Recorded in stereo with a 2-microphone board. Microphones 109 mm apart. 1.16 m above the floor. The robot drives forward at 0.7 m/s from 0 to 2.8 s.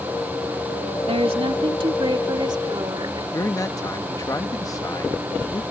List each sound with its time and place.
1.1 s a woman speaking: 60° right (ahead or behind); by 3.2 s 40° right (ahead or behind)
3.3 s a man speaking: 30° left (ahead or behind)